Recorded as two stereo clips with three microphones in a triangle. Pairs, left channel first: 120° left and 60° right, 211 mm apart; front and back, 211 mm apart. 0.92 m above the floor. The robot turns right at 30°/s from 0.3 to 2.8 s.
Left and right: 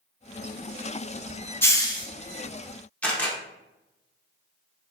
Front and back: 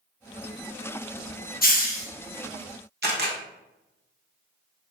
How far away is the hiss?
About 0.6 m.